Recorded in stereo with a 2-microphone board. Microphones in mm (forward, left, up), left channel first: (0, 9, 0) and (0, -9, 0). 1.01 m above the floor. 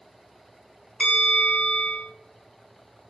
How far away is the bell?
About 1.9 m.